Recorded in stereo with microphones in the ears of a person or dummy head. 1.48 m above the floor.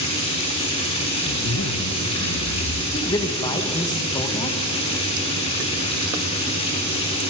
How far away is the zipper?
About 0.8 m.